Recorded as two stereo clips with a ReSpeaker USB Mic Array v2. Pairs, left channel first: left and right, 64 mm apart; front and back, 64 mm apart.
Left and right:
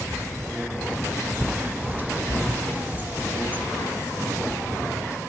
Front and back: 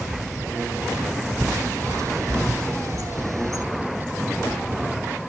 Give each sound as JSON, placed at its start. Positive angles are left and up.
{"t": 1.4, "sound": "a bird", "azimuth_deg": -155, "distance_m": 0.7}